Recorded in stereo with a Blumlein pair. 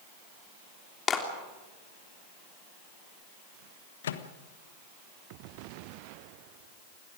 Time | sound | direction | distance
1.1 | a clap | 25° left | 3.5 m
4.0 | a microwave | 60° left | 1.3 m